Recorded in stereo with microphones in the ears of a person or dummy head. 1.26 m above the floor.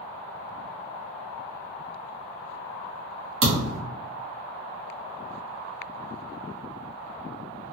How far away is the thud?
About 1.2 m.